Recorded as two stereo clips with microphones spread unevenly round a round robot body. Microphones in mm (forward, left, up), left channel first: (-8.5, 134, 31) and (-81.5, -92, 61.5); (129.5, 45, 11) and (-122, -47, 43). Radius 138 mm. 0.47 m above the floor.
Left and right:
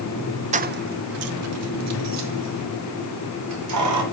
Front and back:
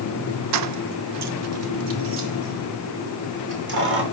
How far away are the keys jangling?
About 0.5 m.